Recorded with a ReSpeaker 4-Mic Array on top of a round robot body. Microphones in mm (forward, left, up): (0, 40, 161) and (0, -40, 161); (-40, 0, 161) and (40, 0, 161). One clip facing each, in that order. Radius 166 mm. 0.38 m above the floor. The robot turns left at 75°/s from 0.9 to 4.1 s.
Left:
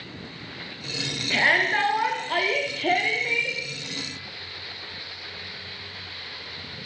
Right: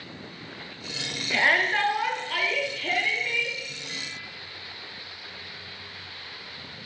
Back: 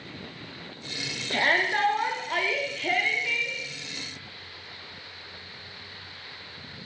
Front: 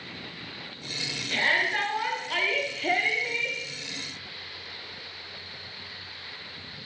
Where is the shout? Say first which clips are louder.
Left 1 dB, back 2 dB; 165° right, 1.4 m; by 3.6 s 25° left, 1.4 m.